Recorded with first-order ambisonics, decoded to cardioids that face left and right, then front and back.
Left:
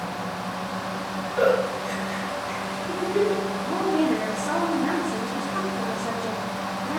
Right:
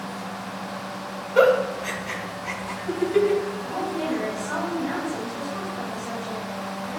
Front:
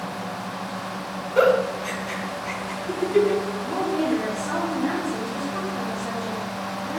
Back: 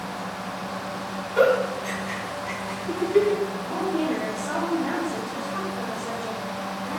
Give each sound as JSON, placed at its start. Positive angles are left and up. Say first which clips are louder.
{"t": 1.4, "sound": "a giggle", "louder": "right 4 dB, front 1 dB", "azimuth_deg": -65, "distance_m": 2.5}
{"t": 3.6, "sound": "a woman speaking", "louder": "left 4 dB, front 2 dB", "azimuth_deg": 70, "distance_m": 2.5}